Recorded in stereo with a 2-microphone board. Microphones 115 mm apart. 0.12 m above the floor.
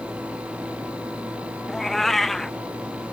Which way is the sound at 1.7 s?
Centre (ahead or behind).